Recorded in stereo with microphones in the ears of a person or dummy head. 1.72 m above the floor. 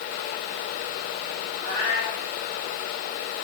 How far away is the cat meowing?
About 6 m.